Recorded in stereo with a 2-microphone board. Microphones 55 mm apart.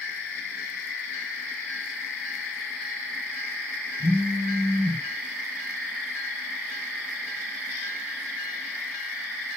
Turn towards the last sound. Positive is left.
turn(degrees=-10)  # may be behind; listen again after turning